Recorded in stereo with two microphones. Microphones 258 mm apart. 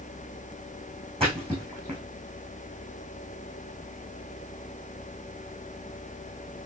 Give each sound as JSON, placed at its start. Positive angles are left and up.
{"t": 1.2, "sound": "a splash", "side_deg": -20, "distance_m": 4.0}